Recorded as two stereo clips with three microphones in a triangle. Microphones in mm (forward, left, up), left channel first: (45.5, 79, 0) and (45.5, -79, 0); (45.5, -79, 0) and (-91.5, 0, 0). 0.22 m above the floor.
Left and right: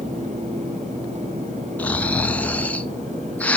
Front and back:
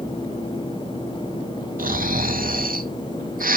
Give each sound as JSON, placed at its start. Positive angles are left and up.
{"t": 1.8, "sound": "snoring", "azimuth_deg": 170, "distance_m": 0.6}